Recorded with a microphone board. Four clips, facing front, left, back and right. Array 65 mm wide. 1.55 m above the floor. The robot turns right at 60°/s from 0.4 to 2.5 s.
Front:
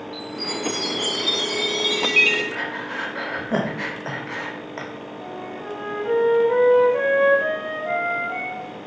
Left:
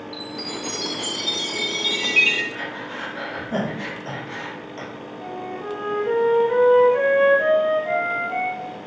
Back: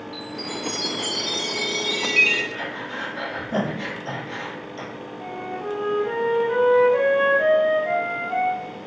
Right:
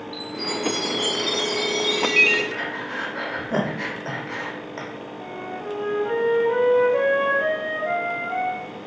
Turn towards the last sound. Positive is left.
turn(degrees=-155)